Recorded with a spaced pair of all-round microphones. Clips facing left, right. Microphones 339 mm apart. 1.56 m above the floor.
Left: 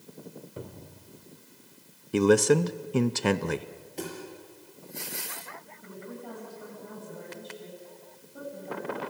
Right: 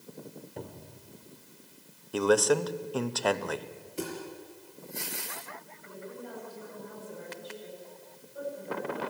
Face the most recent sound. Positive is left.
turn(degrees=60)  # may be behind; listen again after turning